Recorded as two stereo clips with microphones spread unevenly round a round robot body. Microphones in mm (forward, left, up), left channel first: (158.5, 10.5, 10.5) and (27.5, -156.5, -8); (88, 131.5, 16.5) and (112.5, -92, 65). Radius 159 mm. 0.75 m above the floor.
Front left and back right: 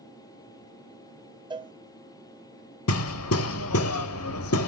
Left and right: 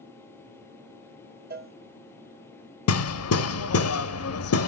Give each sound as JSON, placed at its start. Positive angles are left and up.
{"t": 1.5, "sound": "a cowbell", "azimuth_deg": -60, "distance_m": 0.7}
{"t": 2.9, "sound": "hammering", "azimuth_deg": 85, "distance_m": 0.5}